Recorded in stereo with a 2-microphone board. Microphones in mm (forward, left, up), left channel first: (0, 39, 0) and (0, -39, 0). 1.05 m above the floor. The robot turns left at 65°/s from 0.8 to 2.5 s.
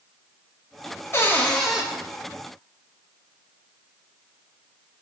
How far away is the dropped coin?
No dropped coin in this recording.